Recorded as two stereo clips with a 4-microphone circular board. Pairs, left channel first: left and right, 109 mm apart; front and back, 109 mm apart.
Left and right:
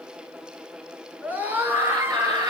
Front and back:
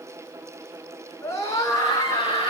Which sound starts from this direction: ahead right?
A scream, at 1.2 s.